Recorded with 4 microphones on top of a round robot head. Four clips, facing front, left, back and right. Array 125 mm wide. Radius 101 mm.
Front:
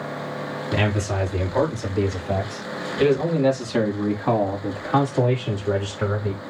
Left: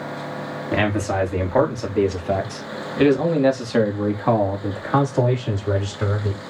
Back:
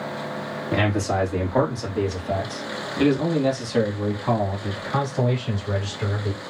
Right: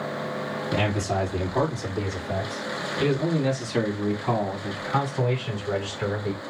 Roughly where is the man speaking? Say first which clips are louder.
Left 5 dB, back 2 dB; behind left.